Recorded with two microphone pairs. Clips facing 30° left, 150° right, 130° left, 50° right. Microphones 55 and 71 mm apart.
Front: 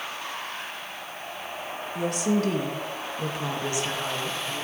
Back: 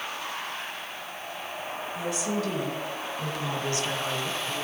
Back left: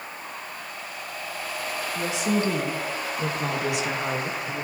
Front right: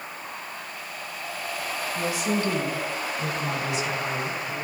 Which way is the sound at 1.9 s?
60° left.